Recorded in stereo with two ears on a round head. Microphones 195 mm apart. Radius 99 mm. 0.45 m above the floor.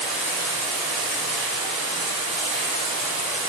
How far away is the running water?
About 1.6 m.